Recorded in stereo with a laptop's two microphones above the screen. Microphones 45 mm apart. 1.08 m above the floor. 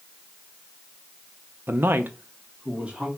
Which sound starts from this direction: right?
A man speaking, at 1.7 s.